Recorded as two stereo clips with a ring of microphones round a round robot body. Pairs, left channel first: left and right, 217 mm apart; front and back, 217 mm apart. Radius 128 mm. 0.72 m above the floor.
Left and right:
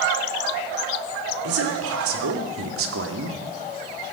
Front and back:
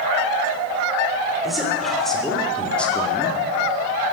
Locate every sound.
1.4 s a man speaking: 90° right, 3.5 m; by 3.4 s 80° right, 1.9 m